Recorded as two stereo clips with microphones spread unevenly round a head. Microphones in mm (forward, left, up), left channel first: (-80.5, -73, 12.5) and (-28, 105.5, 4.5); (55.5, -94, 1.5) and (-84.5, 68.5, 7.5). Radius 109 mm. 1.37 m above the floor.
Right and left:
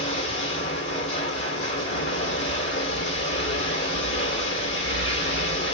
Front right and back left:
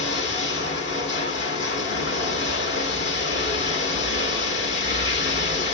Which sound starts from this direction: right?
Running water, at 0.0 s.